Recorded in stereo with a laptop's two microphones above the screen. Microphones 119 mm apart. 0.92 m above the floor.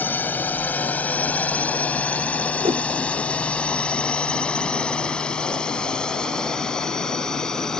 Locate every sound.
0.0 s a drone: 15° left (ahead or behind); by 7.8 s 5° left (ahead or behind)
2.6 s a whoosh: 50° right (ahead or behind)